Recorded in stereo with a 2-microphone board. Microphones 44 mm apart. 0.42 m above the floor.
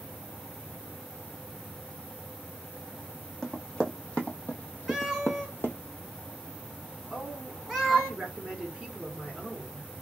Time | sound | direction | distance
3.4 | running footsteps | 15° left (ahead or behind) | 1.1 m
4.9 | a cat meowing | centre (ahead or behind) | 1.3 m
7.1 | a woman speaking | 30° right (ahead or behind) | 1.4 m